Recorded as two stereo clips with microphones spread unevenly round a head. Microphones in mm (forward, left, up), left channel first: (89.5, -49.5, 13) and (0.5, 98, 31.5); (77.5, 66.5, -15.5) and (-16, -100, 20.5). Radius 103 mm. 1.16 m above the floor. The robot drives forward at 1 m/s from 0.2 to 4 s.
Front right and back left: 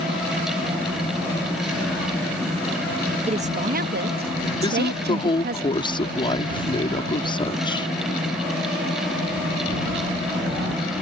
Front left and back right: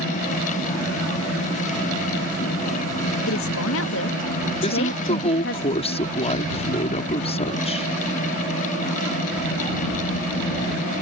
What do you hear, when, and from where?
3.3 s a woman speaking: 65° left; by 5.6 s 90° left
4.6 s a woman speaking: 5° left